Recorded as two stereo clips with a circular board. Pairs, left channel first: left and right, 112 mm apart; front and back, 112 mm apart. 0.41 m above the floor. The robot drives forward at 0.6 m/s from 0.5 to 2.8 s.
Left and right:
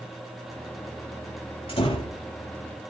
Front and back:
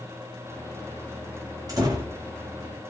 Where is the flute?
No flute in this recording.